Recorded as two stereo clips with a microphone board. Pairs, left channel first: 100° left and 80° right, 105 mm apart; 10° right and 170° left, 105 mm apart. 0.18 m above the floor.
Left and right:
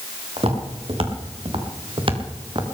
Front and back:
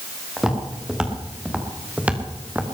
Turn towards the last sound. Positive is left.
turn(degrees=-115)